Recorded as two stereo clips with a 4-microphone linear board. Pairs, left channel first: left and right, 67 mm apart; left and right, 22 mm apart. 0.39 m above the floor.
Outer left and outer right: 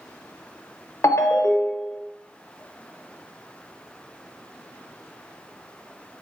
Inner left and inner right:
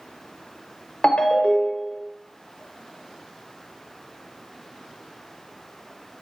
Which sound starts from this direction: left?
A ringtone, at 1.0 s.